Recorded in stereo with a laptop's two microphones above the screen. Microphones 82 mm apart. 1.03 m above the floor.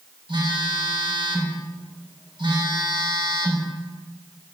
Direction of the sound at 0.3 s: 80° right.